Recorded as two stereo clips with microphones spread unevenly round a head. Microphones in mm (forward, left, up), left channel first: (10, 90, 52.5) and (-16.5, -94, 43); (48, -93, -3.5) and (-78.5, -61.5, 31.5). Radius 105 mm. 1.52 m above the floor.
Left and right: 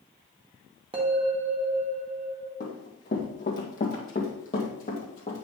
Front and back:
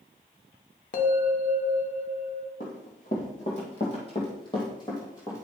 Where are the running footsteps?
35° left, 2.5 m; by 5.4 s 70° left, 1.8 m.